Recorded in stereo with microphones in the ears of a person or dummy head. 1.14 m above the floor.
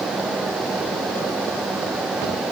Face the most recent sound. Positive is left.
No sound to turn to.